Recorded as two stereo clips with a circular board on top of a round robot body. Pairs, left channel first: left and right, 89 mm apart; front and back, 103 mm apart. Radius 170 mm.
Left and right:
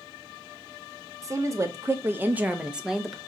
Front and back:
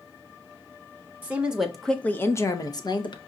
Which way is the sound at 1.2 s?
115° right.